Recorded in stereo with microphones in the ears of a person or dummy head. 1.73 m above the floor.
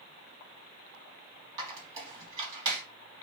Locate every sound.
1.6 s a squeak: 15° right (ahead or behind), 1.3 m